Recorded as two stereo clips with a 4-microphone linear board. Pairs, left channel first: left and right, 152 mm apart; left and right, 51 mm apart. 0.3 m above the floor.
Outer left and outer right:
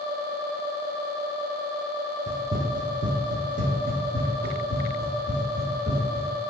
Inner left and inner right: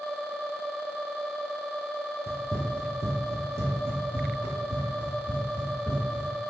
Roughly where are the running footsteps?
Right.